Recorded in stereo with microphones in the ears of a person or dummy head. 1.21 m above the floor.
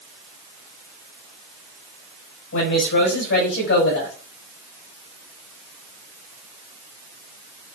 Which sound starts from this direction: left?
A woman speaking, at 2.5 s.